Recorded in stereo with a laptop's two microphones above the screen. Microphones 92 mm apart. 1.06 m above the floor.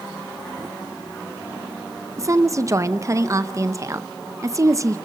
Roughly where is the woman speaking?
Right.